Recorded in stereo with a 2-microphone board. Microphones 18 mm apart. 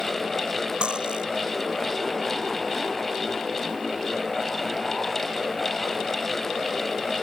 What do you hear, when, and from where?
0.8 s cutlery clinking: 75° right (ahead or behind)